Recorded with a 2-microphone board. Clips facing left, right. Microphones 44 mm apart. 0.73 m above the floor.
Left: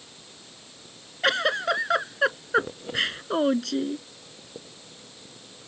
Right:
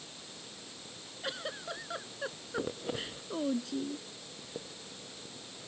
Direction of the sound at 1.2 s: 80° left.